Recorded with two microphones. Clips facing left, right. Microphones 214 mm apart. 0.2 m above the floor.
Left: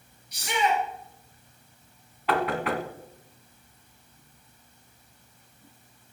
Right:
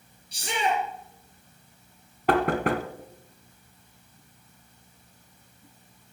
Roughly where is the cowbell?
No cowbell in this recording.